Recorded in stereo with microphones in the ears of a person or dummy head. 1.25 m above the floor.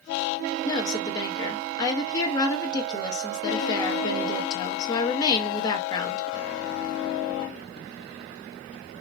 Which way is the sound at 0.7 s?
20° left (ahead or behind).